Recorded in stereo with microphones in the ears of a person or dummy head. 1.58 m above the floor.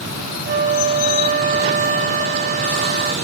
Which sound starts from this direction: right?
A flute, at 0.5 s.